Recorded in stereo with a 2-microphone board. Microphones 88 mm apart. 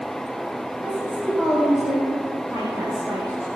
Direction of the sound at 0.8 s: 20° right (ahead or behind).